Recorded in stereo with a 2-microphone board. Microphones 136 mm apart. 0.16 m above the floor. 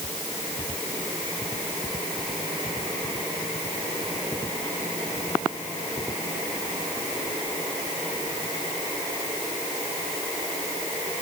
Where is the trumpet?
I don't hear a trumpet.